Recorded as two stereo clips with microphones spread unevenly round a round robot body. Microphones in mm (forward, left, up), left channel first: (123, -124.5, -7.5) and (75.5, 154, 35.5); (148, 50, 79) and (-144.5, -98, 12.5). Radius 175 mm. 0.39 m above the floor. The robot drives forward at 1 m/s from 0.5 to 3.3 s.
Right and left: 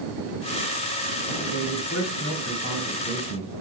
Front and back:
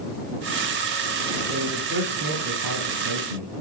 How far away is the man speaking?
About 1.9 m.